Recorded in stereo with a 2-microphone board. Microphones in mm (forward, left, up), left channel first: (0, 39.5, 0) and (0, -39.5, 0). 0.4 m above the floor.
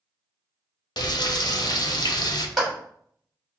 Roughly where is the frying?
Left.